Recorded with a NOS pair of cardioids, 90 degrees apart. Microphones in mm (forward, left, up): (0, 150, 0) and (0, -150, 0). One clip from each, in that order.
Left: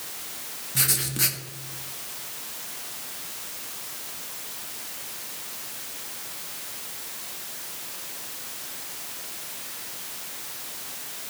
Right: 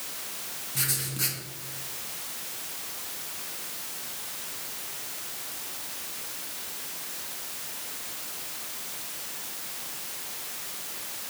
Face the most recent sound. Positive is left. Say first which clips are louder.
# left 5 dB
turn(degrees=35)